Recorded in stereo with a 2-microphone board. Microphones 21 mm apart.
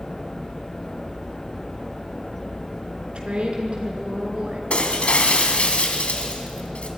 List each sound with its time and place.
3.1 s a woman speaking: 50° right (ahead or behind), 5 m
4.7 s breaking glass: 65° left (ahead or behind), 2.5 m